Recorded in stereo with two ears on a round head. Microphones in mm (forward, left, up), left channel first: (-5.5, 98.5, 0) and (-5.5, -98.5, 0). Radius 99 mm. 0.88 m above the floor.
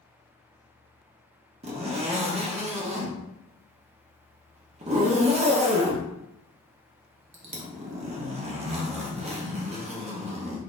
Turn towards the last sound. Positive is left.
turn(degrees=-30)  # may be behind; listen again after turning